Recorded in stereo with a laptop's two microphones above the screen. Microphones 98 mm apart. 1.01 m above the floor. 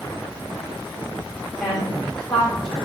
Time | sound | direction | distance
1.6 | a woman speaking | 5° left (ahead or behind) | 1.8 m